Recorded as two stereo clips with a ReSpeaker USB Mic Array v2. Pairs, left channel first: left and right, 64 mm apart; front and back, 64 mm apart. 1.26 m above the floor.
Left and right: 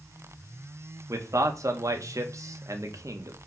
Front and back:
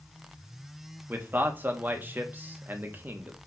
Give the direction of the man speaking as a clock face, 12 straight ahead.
4 o'clock.